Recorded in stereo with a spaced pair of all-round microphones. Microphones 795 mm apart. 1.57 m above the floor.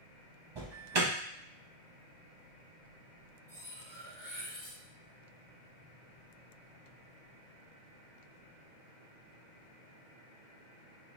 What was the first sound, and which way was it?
An alarm, 35° right (ahead or behind).